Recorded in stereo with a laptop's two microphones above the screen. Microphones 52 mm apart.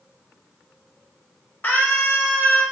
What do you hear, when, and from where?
1.6 s a scream: 40° left (ahead or behind), 1.9 m